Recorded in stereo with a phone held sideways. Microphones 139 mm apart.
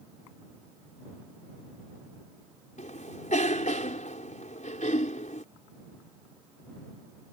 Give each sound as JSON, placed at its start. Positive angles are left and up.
{"t": 2.8, "sound": "a cough", "side_deg": 65}